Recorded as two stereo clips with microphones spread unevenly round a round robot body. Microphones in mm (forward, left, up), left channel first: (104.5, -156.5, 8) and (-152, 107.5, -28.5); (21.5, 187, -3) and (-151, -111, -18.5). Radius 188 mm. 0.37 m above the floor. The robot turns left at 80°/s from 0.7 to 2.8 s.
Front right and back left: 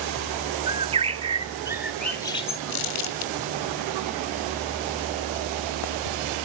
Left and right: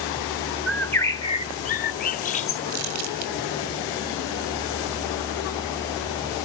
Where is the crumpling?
70° right, 2.0 m; by 3.3 s 75° right, 2.0 m.